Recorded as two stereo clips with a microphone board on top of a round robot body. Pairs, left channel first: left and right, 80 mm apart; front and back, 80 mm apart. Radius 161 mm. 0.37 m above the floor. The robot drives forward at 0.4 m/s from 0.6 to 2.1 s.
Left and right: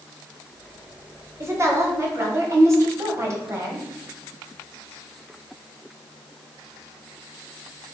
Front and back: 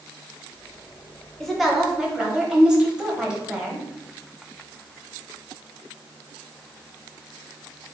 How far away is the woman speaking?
About 1.2 m.